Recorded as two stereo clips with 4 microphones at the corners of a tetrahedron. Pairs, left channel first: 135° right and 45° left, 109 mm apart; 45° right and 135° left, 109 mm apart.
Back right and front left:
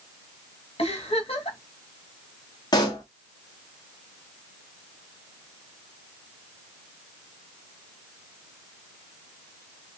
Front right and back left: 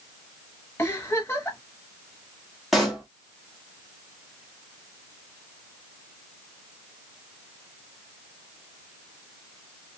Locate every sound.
0.8 s a giggle: 115° right, 1.4 m
2.7 s a pop: 135° right, 1.3 m